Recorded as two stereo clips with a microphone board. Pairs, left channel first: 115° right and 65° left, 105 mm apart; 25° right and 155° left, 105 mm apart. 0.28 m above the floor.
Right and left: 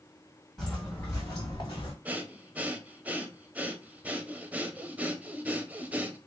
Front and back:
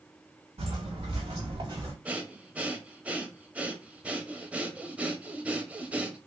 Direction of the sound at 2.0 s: 110° left.